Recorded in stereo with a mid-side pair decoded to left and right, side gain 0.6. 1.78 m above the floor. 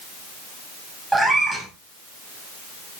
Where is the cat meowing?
5° right, 6.5 m.